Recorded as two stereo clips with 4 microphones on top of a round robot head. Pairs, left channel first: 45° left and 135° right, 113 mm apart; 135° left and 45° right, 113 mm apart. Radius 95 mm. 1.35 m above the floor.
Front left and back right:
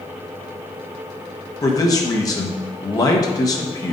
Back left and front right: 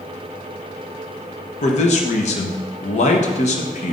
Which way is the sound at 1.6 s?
105° left.